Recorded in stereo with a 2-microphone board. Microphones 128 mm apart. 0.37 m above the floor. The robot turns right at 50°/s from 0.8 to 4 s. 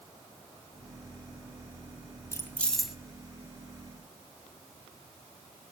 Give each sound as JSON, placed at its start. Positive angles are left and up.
{"t": 2.3, "sound": "keys jangling", "azimuth_deg": 155, "distance_m": 1.6}